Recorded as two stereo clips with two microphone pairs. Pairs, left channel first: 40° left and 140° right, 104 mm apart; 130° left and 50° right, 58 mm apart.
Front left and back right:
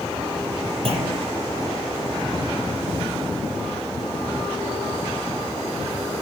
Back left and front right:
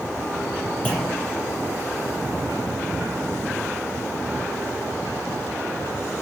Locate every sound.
0.8 s a clunk: 165° right, 5.5 m